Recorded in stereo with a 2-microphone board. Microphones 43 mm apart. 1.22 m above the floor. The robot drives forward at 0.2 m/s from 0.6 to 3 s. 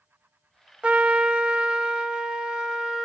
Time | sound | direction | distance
0.8 | a trumpet | 30° right (ahead or behind) | 0.6 m